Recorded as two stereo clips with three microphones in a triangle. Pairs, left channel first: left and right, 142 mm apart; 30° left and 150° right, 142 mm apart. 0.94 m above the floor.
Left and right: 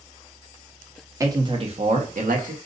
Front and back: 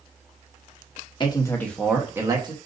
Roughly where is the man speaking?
Ahead right.